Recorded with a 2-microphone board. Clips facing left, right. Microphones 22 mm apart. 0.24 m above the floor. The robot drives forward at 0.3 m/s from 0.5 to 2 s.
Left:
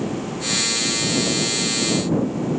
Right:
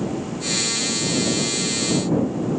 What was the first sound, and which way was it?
Only background noise.